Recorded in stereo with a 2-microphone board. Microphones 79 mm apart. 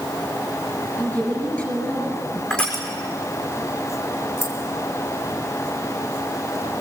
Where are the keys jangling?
35° left (ahead or behind), 5 m.